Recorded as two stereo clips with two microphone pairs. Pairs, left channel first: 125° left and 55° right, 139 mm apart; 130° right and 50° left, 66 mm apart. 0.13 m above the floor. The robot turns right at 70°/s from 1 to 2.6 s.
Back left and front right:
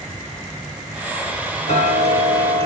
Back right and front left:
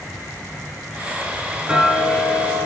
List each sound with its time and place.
1.7 s ticking: 110° left, 1.0 m; by 2.7 s 175° left, 1.0 m